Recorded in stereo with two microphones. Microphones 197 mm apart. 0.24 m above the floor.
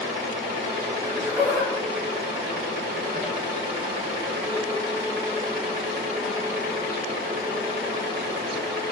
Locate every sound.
1.0 s laughter: 20° right (ahead or behind), 1.4 m; by 4.8 s 50° left (ahead or behind), 1.8 m